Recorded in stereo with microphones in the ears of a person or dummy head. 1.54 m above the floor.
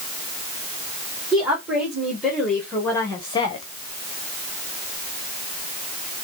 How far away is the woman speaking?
About 2.5 m.